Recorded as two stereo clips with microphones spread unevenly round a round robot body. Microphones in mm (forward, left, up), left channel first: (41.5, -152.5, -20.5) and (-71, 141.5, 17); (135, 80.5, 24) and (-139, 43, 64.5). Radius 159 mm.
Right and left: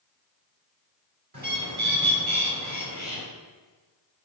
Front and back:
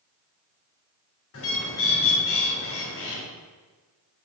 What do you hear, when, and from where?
1.3 s a bird: 45° left, 2.5 m